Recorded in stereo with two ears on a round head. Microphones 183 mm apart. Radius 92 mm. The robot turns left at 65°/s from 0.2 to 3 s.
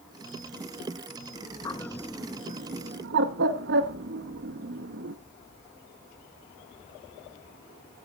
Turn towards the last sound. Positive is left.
turn(degrees=-55)  # may be behind; listen again after turning